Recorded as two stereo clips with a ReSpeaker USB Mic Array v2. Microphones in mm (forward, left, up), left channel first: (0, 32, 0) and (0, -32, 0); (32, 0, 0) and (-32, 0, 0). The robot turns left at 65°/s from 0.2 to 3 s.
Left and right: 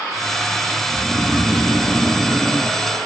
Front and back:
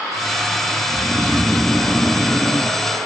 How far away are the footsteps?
I don't hear footsteps.